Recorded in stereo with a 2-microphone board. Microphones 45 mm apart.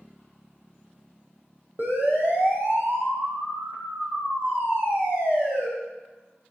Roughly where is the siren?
Right.